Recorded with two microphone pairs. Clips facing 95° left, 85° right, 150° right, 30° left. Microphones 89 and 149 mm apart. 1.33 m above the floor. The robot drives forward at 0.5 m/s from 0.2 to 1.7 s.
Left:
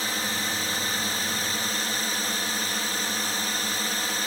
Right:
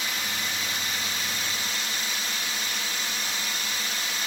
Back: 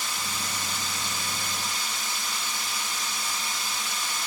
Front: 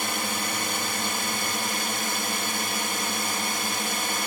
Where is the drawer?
I don't hear a drawer.